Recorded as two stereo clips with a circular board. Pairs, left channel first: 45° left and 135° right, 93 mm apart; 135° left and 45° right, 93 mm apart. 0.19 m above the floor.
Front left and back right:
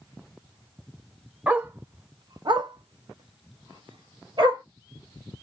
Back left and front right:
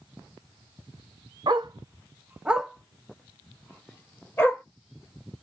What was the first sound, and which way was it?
A dog barking, 65° right.